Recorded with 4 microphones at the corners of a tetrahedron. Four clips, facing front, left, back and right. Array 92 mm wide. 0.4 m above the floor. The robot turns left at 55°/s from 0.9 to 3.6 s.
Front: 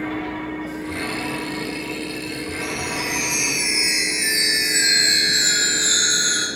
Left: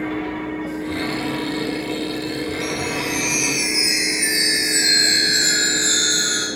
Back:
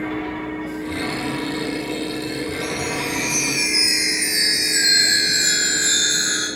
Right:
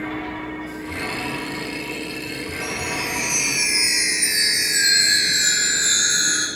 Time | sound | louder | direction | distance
2.6 | a chime | left 3 dB, back 2 dB | 105° left | 6 m